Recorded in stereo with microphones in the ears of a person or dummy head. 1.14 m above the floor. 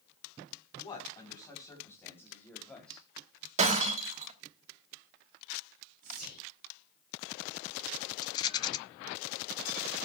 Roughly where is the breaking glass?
Right.